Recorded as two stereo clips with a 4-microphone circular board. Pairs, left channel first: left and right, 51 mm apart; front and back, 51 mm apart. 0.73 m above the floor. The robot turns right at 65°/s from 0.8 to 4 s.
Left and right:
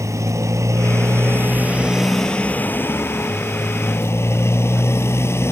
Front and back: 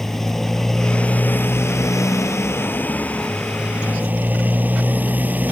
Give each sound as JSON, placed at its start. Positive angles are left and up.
{"t": 0.0, "sound": "a motorcycle", "azimuth_deg": -85}